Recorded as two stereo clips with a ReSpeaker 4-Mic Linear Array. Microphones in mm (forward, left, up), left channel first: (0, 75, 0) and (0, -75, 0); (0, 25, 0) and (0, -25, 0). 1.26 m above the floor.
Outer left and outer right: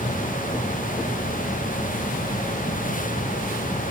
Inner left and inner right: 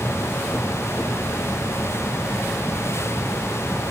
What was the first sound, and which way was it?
Only background noise.